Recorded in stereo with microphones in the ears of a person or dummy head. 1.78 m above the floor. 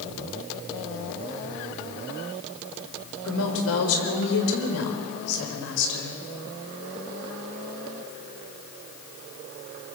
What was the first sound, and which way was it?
A woman speaking, 75° left (ahead or behind).